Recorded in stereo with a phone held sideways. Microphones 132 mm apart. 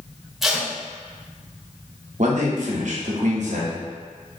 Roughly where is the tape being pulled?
Centre.